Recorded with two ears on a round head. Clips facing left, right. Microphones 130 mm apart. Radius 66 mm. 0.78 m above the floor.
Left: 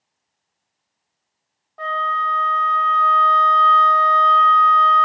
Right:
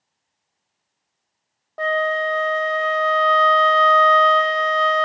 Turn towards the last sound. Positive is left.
turn(degrees=-55)  # may be behind; listen again after turning